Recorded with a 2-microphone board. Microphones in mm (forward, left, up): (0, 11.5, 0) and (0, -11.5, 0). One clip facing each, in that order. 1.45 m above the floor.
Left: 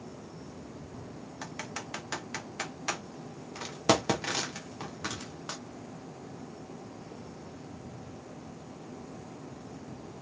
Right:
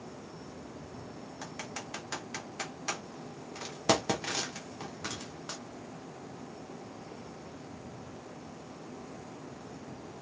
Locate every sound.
1.4 s typing on a keyboard: 15° left (ahead or behind), 0.9 m